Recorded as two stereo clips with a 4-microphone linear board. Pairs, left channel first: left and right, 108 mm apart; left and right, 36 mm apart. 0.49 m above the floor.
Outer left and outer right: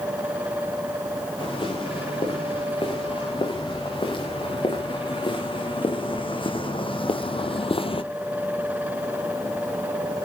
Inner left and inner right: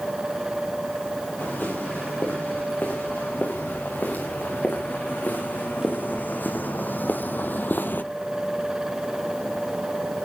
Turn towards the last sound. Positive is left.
turn(degrees=55)  # may be behind; listen again after turning